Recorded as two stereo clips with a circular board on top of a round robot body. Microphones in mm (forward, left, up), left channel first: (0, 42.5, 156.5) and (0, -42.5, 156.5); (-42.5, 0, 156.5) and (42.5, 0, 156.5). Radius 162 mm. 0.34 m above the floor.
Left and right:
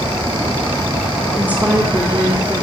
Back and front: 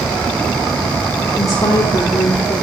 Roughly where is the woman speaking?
Behind right.